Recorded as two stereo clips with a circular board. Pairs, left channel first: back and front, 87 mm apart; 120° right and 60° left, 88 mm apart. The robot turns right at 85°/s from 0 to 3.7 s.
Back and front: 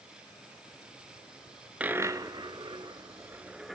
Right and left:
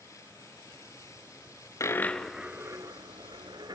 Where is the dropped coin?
75° right, 0.9 m; by 3.8 s 90° left, 0.9 m.